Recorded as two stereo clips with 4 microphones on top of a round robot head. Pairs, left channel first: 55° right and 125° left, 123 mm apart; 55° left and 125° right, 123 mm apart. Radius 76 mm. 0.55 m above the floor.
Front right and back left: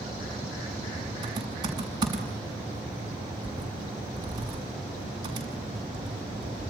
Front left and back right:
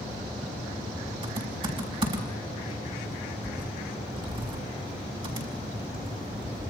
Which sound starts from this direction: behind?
Typing on a keyboard, at 1.2 s.